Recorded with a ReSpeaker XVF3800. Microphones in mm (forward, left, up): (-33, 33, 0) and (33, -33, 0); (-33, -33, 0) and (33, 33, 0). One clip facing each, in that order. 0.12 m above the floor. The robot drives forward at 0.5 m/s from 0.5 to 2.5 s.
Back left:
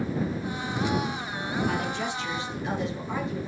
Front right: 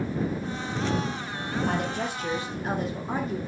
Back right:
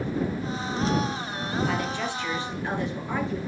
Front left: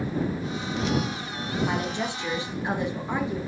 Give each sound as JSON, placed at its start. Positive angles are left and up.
{"t": 1.7, "sound": "a woman speaking", "azimuth_deg": -15, "distance_m": 2.5}